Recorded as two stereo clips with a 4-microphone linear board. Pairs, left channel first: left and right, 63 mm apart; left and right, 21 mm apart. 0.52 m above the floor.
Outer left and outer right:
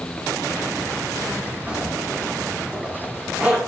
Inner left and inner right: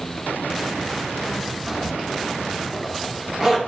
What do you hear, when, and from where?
1.7 s a zipper: 20° right (ahead or behind), 1.2 m